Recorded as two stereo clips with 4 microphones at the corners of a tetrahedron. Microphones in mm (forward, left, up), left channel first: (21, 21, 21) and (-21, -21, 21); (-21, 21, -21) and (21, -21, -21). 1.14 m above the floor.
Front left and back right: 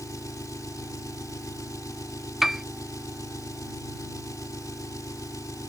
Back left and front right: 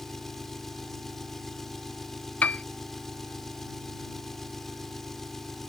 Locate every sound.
0.0 s an engine running: 50° left
2.4 s a piano: 140° left